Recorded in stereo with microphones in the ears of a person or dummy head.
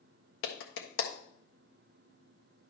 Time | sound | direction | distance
0.4 | a clap | 60° left (ahead or behind) | 1.3 m